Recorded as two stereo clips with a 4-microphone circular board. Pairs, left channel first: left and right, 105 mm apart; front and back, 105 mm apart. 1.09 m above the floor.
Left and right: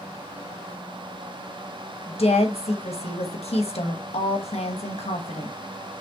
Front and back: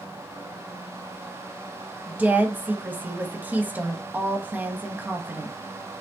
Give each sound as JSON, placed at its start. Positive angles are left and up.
{"t": 2.1, "sound": "a woman speaking", "azimuth_deg": 105, "distance_m": 1.0}